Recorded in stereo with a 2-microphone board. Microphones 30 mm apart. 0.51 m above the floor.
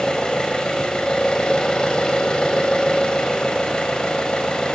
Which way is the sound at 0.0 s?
30° left (ahead or behind).